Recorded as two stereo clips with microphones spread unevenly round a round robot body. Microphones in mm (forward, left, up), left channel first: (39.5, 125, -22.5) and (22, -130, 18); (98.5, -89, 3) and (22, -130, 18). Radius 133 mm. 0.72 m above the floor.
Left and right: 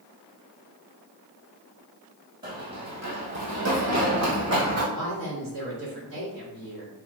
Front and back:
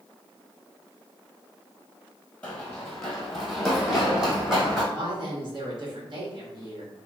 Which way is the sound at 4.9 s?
130° right.